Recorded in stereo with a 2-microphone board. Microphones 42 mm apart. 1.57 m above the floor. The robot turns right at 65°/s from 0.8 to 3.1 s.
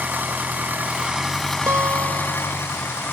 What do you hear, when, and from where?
0.0 s an engine running: 40° right; by 3.1 s 110° left
1.7 s a guitar: 110° right; by 2.6 s 50° right